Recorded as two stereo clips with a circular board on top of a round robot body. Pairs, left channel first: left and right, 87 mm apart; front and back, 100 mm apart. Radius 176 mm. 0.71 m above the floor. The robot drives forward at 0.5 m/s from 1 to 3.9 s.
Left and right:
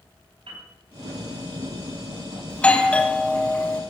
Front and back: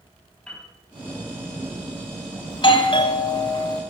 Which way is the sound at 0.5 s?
80° right.